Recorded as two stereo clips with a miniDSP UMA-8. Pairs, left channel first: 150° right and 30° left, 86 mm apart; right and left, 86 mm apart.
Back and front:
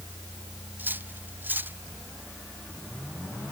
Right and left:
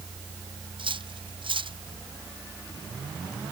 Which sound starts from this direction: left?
Cutlery clinking, at 0.8 s.